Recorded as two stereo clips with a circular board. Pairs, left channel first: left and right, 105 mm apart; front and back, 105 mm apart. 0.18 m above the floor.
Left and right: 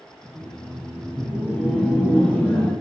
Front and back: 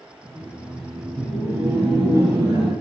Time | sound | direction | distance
0.2 | laughter | 5° left | 1.1 m